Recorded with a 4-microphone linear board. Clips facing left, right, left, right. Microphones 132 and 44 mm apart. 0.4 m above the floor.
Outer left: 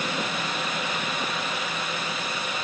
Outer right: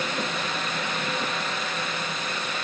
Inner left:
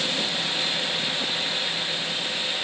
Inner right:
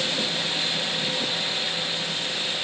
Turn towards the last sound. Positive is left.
No sound to turn to.